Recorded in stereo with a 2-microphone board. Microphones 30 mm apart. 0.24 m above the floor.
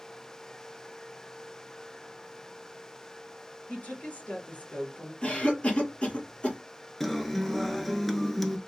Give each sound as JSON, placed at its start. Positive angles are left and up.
{"t": 3.7, "sound": "a woman speaking", "side_deg": 65, "distance_m": 2.0}
{"t": 5.2, "sound": "a cough", "side_deg": 45, "distance_m": 2.0}
{"t": 7.0, "sound": "a guitar", "side_deg": 5, "distance_m": 0.6}